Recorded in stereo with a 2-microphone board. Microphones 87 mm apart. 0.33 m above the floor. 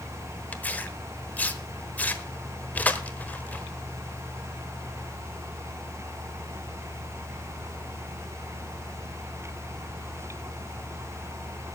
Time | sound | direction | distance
0.5 | tearing paper | 20° left (ahead or behind) | 1.2 m